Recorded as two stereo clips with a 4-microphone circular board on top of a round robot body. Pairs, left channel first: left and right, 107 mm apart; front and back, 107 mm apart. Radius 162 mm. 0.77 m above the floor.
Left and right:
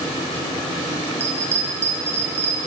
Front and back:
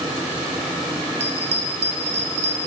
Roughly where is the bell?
Behind.